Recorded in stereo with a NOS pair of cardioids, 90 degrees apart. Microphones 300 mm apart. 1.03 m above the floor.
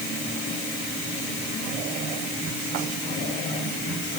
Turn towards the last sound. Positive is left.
No sound to turn to.